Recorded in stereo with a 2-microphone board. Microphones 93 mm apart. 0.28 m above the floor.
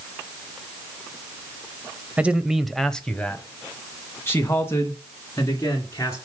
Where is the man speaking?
15° right (ahead or behind), 0.9 m; by 6.2 s 35° left (ahead or behind), 3 m.